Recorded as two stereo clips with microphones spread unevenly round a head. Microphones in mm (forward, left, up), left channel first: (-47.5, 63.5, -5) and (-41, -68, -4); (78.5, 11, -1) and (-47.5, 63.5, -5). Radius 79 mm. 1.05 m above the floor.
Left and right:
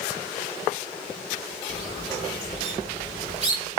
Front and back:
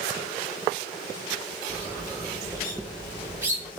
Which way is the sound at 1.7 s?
125° right.